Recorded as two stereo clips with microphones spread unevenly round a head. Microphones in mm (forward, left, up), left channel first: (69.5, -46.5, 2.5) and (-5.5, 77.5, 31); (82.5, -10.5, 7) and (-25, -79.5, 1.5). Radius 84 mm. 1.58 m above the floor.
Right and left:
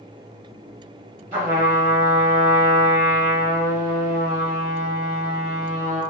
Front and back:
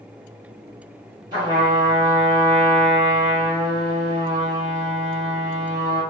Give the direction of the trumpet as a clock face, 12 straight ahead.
7 o'clock.